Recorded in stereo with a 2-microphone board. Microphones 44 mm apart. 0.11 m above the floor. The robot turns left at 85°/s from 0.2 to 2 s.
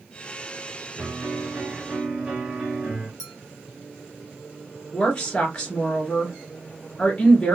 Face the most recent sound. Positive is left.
turn(degrees=20)  # may be behind; listen again after turning